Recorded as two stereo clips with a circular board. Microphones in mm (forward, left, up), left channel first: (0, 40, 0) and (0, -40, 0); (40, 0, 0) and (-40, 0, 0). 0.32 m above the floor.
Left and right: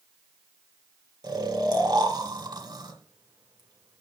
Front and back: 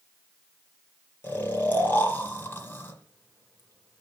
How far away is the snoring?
About 1.8 m.